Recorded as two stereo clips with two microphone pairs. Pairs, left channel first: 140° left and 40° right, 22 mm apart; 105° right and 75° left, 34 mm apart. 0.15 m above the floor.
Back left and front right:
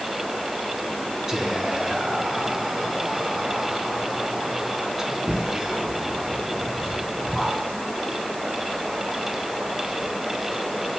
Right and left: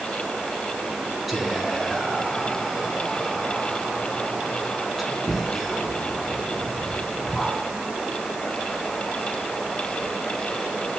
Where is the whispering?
10° right, 1.1 m.